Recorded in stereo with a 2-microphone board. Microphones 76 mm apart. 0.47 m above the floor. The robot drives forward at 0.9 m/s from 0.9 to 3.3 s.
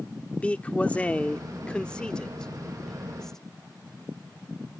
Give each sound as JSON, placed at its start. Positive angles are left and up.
{"t": 0.4, "sound": "a man speaking", "side_deg": 15}